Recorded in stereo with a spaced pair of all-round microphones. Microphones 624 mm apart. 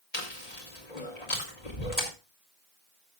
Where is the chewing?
80° left, 3 m.